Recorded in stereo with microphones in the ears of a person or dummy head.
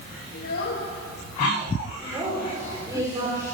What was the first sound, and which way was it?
A child speaking, 80° left.